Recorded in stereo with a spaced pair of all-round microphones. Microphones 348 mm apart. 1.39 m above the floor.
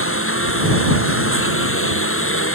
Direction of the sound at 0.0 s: 40° left (ahead or behind).